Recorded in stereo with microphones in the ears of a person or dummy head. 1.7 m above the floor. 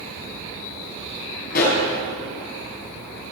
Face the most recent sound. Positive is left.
turn(degrees=50)  # may be behind; listen again after turning